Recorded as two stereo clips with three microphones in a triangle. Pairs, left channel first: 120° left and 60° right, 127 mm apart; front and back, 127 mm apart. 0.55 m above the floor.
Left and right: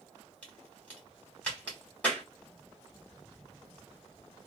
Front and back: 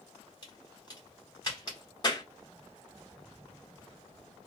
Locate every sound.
0.4 s a crack: 45° left, 1.5 m